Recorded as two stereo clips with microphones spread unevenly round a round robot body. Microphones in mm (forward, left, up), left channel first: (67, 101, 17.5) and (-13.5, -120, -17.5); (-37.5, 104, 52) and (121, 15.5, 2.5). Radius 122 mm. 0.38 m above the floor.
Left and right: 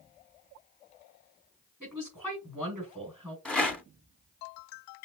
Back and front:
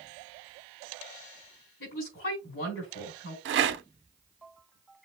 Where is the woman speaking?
160° left, 3.5 m.